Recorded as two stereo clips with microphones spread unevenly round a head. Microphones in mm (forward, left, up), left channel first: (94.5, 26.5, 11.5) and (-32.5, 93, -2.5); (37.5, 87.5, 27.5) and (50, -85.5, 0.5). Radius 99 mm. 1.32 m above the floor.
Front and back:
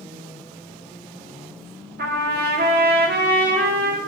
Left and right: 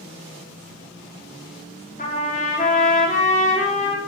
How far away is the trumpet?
About 2.5 m.